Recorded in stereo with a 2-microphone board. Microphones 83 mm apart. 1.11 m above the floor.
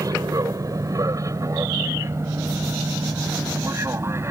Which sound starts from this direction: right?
An aircraft, at 0.0 s.